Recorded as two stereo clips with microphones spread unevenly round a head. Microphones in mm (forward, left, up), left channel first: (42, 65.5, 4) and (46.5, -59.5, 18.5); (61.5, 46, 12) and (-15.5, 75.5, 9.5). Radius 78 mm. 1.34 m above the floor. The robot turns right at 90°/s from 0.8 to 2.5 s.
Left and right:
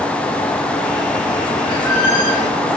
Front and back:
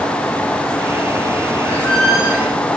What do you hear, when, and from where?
1.6 s a squeak: 30° left, 3.5 m; by 2.6 s 105° left, 3.5 m